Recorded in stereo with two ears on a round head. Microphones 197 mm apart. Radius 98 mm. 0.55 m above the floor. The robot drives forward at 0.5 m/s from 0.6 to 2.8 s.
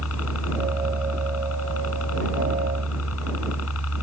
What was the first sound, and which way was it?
A helicopter, 75° left (ahead or behind).